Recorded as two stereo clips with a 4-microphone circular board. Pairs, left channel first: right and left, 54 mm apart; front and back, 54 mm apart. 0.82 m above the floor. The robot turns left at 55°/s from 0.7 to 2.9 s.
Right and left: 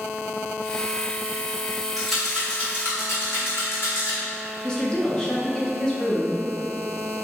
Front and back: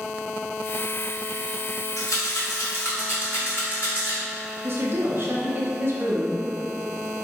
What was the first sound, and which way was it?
A rattle, 5° left.